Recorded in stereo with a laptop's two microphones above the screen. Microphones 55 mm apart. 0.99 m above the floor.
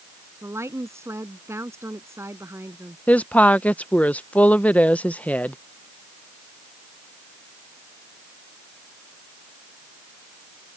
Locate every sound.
0.4 s a woman speaking: 55° right (ahead or behind)
3.1 s a woman speaking: 25° left (ahead or behind)